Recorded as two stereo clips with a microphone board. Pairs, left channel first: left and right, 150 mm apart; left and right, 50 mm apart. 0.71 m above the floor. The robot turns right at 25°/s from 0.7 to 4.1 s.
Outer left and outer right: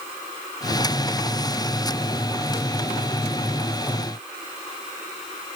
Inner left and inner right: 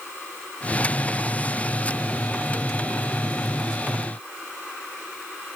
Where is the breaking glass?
No breaking glass in this recording.